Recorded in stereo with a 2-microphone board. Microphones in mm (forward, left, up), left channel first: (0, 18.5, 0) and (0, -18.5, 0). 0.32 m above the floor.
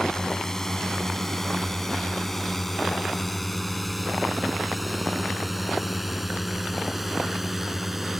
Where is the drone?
15° left (ahead or behind); by 8.2 s 10° right (ahead or behind).